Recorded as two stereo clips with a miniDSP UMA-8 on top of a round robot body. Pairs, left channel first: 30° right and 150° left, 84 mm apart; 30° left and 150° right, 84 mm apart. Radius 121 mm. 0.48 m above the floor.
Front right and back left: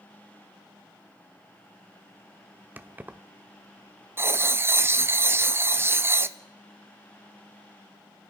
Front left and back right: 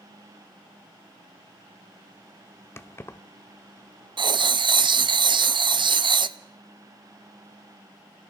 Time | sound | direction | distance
2.8 | keys jangling | 85° left | 0.9 m
4.2 | writing | 150° right | 0.6 m